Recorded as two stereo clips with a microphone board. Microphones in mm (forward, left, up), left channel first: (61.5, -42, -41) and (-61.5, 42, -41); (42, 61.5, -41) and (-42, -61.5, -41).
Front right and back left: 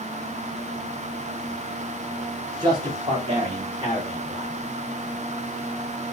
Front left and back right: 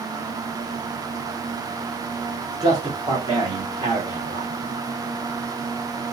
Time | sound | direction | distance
2.6 | a man speaking | 175° right | 1.7 m